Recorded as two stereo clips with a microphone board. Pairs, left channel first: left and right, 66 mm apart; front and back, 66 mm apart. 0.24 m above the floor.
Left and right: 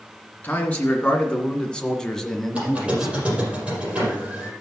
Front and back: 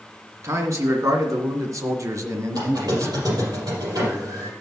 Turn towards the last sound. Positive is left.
turn(degrees=-160)